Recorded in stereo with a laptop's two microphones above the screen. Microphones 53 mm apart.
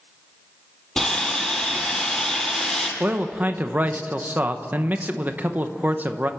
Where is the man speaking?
35° right (ahead or behind), 0.9 m.